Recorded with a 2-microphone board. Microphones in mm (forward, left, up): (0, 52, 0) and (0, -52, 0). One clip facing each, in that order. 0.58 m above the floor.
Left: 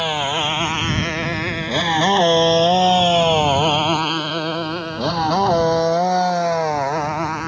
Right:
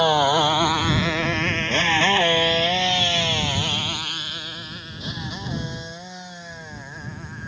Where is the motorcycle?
20° right (ahead or behind); by 7.5 s 85° left.